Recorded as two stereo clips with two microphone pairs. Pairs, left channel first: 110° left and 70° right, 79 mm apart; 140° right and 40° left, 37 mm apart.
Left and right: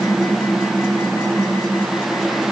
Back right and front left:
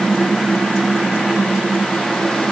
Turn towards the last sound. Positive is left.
No sound to turn to.